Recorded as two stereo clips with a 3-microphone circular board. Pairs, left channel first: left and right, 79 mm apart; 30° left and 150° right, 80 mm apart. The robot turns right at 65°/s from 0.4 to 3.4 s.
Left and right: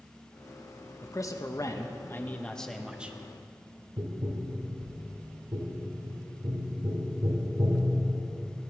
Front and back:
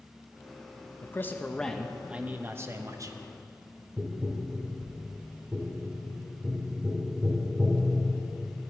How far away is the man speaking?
About 0.8 m.